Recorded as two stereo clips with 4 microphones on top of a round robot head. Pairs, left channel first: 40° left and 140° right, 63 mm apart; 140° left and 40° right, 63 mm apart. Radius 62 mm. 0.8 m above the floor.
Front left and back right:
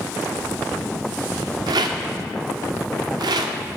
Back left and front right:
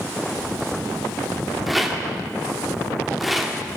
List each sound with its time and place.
1.7 s a rattle: 130° right, 0.9 m